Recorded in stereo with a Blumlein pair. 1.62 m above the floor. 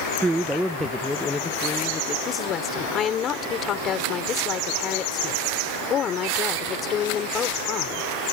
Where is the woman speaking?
30° left.